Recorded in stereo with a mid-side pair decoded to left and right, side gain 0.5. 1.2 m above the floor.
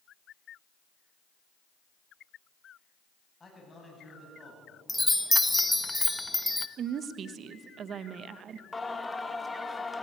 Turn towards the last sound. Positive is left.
turn(degrees=15)